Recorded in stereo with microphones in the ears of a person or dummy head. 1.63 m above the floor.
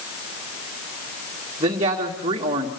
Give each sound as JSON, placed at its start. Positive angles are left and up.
{"t": 1.6, "sound": "a man speaking", "side_deg": -25, "distance_m": 1.7}